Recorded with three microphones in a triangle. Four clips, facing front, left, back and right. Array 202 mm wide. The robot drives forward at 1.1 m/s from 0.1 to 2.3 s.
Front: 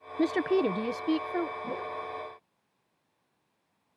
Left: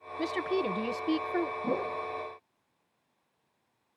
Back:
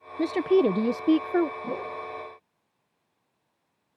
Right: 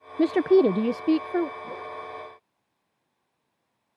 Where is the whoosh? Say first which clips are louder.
Left 5 dB, back 3 dB; 105° left; by 2.0 s 115° left.